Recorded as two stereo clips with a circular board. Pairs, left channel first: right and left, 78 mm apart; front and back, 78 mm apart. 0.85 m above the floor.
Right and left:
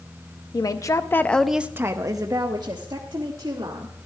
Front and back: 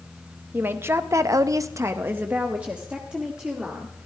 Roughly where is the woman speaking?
Behind right.